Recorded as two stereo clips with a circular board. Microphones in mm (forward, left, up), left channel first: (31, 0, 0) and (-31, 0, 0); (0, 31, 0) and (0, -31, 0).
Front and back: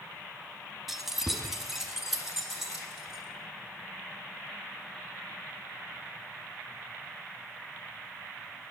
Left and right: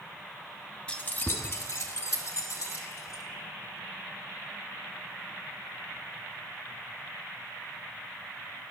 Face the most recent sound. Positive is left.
turn(degrees=95)